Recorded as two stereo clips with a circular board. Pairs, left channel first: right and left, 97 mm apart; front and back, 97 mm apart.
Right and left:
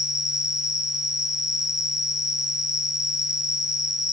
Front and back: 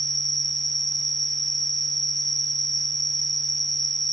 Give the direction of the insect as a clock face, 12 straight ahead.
9 o'clock.